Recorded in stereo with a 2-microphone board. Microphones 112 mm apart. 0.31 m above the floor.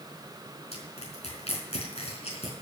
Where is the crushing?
70° left (ahead or behind), 4 m.